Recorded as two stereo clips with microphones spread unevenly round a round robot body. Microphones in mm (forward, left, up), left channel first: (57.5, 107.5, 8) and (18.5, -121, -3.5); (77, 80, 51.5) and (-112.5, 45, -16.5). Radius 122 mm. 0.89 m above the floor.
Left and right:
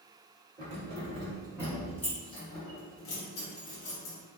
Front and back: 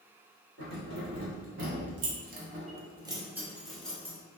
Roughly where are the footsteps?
I don't hear footsteps.